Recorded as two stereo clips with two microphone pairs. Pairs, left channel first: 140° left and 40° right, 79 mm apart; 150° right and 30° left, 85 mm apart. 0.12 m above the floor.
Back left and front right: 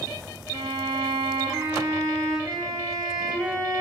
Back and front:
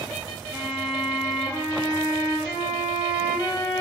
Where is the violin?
50° right, 4.5 m.